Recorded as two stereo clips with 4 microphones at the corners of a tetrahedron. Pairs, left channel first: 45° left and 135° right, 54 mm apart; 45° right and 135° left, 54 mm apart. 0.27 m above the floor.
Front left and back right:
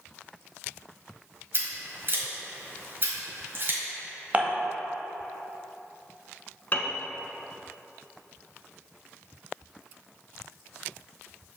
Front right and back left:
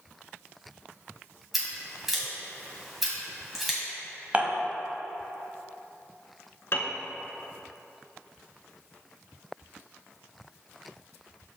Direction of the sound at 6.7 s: 5° right.